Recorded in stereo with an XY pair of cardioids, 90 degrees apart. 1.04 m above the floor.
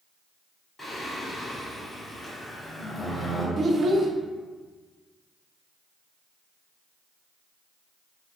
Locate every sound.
0.8 s singing: 25° left, 1.1 m
3.6 s a child speaking: 45° right, 0.5 m